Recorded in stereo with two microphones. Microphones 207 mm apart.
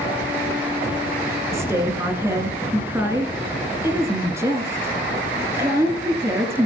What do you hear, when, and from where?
1.5 s a woman speaking: 10° right (ahead or behind), 1.5 m